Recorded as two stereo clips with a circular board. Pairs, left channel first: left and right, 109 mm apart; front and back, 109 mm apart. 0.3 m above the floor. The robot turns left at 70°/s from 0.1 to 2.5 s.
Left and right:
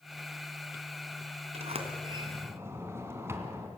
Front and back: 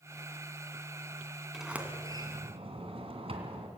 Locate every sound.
1.5 s a sliding door: 90° right, 2.5 m; by 3.7 s 155° right, 2.5 m